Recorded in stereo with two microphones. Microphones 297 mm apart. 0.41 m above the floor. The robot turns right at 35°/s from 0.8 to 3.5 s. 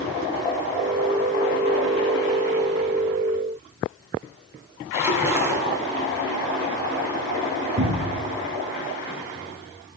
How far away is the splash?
About 3 m.